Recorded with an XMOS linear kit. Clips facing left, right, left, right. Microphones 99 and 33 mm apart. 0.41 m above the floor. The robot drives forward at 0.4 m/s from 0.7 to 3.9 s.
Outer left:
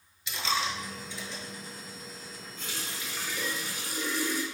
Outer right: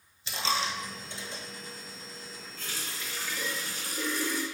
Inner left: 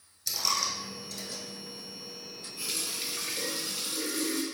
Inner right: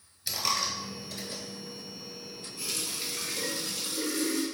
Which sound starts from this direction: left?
A running tap, at 2.6 s.